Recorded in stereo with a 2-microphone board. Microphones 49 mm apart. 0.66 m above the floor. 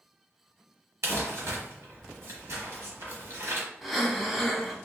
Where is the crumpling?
65° right (ahead or behind), 1.1 m.